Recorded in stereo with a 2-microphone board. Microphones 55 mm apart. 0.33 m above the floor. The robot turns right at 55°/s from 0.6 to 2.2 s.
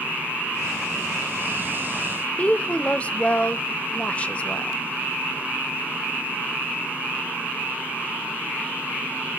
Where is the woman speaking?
25° left (ahead or behind), 1.0 m.